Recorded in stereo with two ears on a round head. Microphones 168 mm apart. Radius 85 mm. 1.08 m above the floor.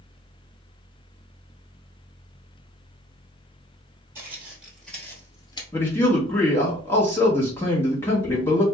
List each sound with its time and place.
4.2 s footsteps: 10° right (ahead or behind), 1.5 m; by 5.6 s 25° left (ahead or behind), 1.2 m
5.7 s a man speaking: 10° left (ahead or behind), 1.2 m